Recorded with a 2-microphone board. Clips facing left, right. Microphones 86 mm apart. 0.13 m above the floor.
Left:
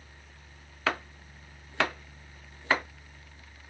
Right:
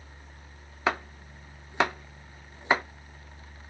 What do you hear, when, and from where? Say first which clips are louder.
0.9 s chopping: right 3 dB; 20° right (ahead or behind), 0.6 m